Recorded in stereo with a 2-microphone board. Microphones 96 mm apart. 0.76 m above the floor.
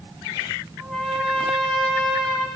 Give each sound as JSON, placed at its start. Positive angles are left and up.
{"t": 0.8, "sound": "a trumpet", "side_deg": 5, "distance_m": 2.0}